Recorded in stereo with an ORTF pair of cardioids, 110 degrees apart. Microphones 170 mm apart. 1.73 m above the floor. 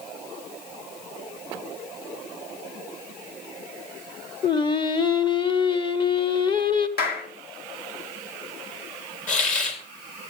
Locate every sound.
4.4 s singing: 30° left, 1.0 m
7.0 s a clap: 60° left, 2 m
9.3 s a hiss: 50° left, 3.5 m